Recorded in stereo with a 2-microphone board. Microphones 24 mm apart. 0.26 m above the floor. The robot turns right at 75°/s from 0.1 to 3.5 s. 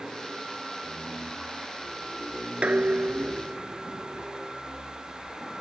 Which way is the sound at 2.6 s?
115° right.